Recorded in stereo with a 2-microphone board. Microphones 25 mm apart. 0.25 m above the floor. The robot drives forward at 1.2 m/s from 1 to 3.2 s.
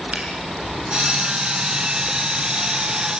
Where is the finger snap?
65° right (ahead or behind), 5.5 m.